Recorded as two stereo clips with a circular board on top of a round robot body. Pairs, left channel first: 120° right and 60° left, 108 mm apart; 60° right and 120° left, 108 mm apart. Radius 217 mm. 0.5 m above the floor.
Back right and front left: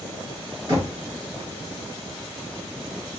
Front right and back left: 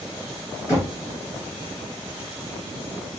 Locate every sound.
0.7 s knocking: straight ahead, 3 m